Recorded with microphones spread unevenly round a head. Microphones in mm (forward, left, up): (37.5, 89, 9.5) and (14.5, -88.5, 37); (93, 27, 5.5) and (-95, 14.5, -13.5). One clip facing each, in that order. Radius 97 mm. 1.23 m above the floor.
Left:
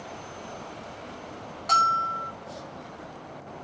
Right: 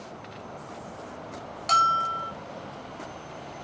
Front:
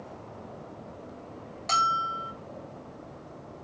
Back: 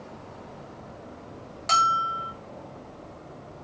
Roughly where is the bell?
Right.